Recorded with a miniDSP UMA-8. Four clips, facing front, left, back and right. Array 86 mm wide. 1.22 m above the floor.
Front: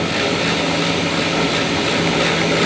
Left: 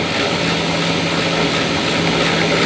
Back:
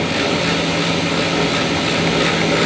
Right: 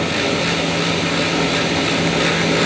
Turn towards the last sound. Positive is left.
No sound to turn to.